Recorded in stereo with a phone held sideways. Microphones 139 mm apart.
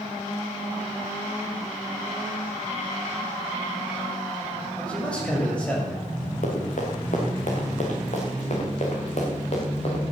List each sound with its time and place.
4.8 s a man speaking: 10° left (ahead or behind), 7 m
6.4 s running footsteps: 65° left (ahead or behind), 5 m; by 10.0 s 50° left (ahead or behind), 6 m